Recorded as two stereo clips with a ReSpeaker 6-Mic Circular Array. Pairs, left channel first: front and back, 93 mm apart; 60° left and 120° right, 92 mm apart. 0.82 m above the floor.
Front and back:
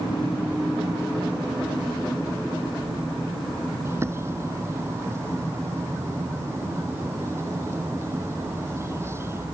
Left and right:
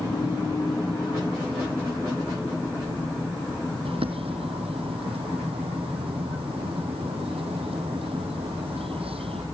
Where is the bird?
120° right.